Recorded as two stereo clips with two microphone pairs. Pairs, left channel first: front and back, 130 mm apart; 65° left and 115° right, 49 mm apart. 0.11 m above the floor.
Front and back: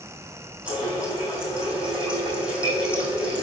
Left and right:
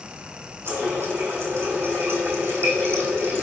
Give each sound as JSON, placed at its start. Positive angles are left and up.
{"t": 0.7, "sound": "a running tap", "azimuth_deg": -95, "distance_m": 3.5}